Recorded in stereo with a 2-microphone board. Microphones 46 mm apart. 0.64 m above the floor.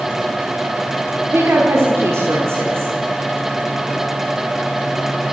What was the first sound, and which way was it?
A woman speaking, 65° right (ahead or behind).